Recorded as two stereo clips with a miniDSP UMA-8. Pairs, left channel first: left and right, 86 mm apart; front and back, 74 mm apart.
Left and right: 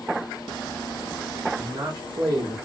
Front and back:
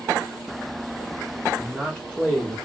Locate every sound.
1.6 s a man speaking: 75° right, 1.5 m